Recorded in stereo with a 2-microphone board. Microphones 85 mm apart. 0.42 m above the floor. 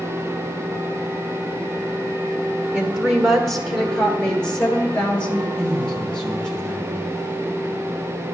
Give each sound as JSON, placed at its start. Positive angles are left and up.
{"t": 2.7, "sound": "a woman speaking", "side_deg": -10, "distance_m": 1.3}
{"t": 5.5, "sound": "a man speaking", "side_deg": 10, "distance_m": 3.0}